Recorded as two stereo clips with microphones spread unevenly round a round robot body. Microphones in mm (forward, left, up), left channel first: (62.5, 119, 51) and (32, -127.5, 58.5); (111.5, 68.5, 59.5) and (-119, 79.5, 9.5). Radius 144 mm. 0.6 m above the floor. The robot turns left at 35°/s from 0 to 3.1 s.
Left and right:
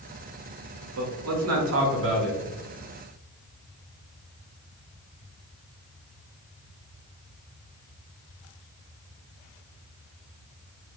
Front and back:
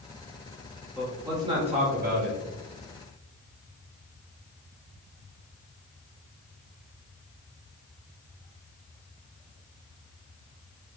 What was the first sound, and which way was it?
A man speaking, 100° right.